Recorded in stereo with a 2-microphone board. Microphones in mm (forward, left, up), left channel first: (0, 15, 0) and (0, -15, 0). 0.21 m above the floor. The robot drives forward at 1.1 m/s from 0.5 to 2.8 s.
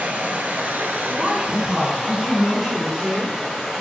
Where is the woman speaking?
25° right (ahead or behind), 1.3 m; by 3.4 s 10° right (ahead or behind), 3 m.